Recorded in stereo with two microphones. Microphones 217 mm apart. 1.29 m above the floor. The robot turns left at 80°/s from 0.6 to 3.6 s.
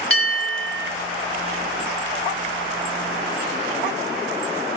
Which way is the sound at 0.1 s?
75° right (ahead or behind).